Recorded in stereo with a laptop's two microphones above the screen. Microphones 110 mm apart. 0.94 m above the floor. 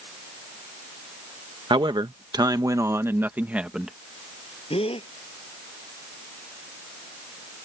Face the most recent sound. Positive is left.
turn(degrees=60)  # may be behind; listen again after turning